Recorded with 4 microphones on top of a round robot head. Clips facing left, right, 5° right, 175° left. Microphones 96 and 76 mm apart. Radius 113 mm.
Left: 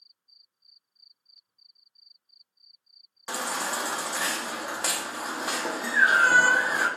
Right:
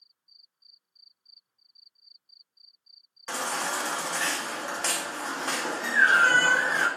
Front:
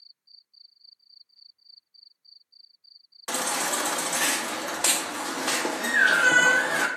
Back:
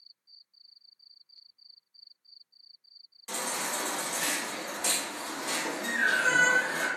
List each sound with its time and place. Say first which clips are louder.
3.3 s a baby crying: even, front 6 dB; 10° left, 0.6 m